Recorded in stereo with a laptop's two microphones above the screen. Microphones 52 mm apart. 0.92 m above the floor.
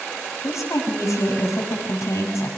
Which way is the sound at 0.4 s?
85° left.